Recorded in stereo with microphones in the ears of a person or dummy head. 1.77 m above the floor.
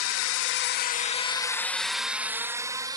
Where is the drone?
80° left; by 3.0 s 20° right (ahead or behind).